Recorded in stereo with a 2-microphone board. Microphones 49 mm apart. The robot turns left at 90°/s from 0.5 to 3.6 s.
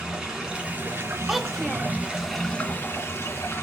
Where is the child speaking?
5° right (ahead or behind), 0.6 m; by 1.9 s 15° left (ahead or behind), 0.6 m.